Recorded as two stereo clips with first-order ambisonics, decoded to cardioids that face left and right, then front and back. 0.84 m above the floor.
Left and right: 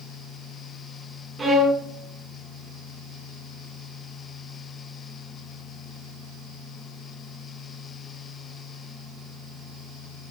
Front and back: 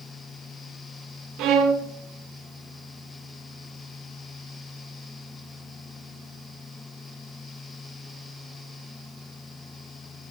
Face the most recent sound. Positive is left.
turn(degrees=-170)